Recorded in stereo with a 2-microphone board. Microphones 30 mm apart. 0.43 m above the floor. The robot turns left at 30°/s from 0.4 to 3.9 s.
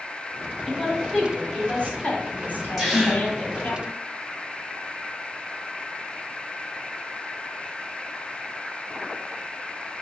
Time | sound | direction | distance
0.7 | a woman speaking | 175° left | 2.5 m
2.8 | a gasp | 10° right (ahead or behind) | 4 m